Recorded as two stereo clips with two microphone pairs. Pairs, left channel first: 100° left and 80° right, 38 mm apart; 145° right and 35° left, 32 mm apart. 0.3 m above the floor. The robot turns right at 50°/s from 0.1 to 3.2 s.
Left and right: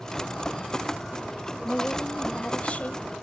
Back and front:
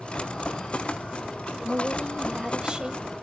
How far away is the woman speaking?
About 1.2 m.